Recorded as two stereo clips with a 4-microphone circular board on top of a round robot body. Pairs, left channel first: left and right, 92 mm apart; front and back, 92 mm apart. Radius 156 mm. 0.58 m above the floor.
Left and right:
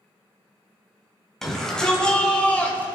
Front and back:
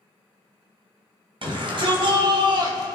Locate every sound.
1.4 s a shout: 175° left, 3 m; by 3.0 s 155° left, 2 m